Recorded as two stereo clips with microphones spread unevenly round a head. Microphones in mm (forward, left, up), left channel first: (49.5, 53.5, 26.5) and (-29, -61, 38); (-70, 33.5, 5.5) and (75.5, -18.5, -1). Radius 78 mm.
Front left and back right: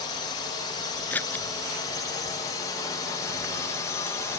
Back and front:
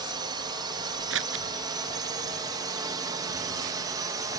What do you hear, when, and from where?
0.0 s a drone: 25° left; by 4.4 s 20° left
1.1 s scissors: 25° right